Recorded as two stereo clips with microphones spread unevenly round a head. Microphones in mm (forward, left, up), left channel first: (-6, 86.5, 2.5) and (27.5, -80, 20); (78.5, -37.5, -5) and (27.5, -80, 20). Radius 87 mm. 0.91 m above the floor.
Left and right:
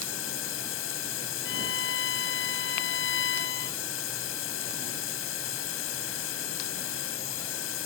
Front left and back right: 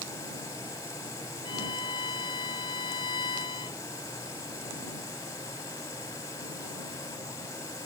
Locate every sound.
0.0 s a machine running: 110° left
1.4 s a violin: 80° left